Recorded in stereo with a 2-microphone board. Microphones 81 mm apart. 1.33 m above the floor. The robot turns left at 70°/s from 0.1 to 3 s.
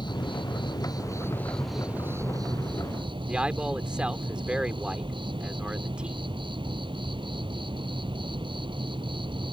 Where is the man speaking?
15° right (ahead or behind).